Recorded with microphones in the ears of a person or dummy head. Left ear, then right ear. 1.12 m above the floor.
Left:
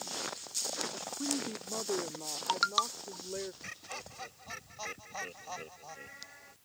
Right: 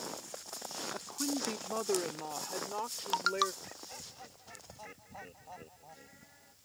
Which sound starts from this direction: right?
A woman speaking, at 0.9 s.